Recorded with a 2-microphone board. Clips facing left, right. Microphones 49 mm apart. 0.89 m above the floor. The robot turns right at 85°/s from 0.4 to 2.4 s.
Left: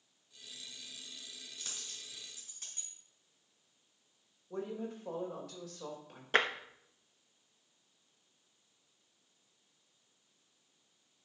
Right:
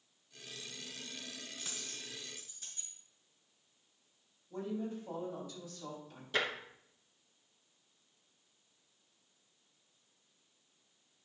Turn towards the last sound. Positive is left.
turn(degrees=45)  # may be behind; listen again after turning